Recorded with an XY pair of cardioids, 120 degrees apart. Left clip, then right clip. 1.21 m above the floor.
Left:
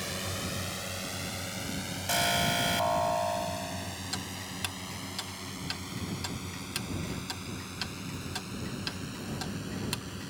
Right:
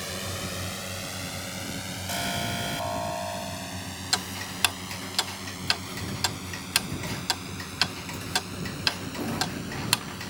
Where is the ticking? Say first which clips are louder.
Right 13 dB; 60° right.